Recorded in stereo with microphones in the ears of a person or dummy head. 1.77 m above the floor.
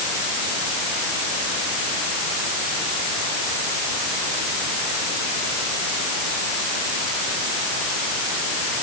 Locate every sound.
Only background noise.